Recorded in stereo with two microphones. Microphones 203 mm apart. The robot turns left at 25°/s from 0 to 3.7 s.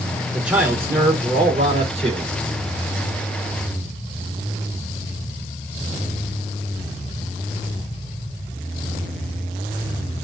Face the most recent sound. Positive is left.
turn(degrees=-90)